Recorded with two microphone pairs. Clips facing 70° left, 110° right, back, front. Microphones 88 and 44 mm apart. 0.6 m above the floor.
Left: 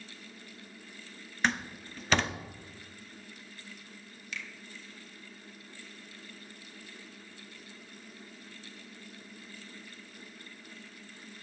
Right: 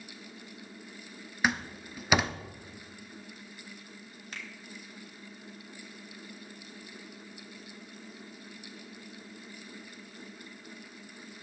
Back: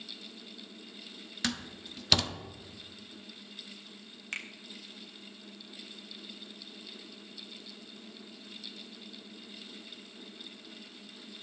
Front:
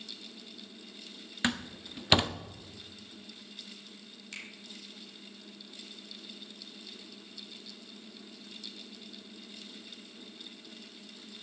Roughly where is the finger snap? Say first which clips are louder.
Left 1 dB, back 6 dB; behind right.